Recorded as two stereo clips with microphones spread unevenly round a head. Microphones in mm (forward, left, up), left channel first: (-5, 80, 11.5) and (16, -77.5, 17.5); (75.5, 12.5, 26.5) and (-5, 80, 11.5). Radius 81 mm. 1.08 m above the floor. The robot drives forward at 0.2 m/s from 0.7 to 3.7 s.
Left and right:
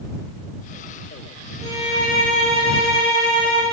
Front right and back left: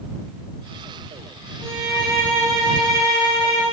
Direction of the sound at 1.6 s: 130° right.